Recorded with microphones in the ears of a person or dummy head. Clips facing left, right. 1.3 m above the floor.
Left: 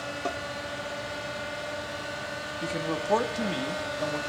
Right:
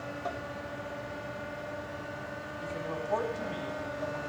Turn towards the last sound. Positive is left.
turn(degrees=85)